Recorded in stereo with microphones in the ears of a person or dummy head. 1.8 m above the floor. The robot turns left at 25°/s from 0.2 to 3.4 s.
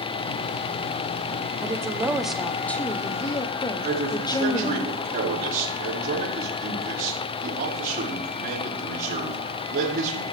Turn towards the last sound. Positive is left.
turn(degrees=-45)  # may be behind; listen again after turning